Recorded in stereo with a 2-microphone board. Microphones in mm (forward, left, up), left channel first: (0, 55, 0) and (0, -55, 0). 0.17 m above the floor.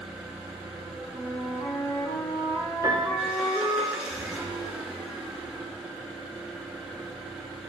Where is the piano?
35° right (ahead or behind), 0.7 m.